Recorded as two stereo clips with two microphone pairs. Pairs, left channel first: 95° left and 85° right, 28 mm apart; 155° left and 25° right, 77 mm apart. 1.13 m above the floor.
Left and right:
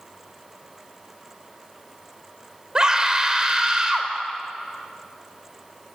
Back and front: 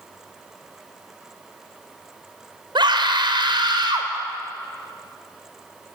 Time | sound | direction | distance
2.8 | a scream | 20° right | 4 m